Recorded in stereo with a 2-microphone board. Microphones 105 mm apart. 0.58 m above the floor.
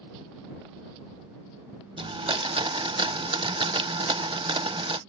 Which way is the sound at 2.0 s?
55° right (ahead or behind).